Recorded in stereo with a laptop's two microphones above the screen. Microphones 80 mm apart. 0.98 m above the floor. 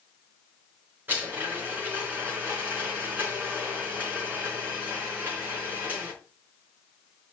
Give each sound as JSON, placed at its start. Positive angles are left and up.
{"t": 1.1, "sound": "a blender", "side_deg": -25, "distance_m": 4.0}